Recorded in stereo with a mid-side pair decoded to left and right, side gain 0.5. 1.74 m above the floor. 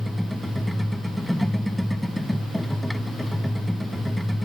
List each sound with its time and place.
0.0 s a machine running: straight ahead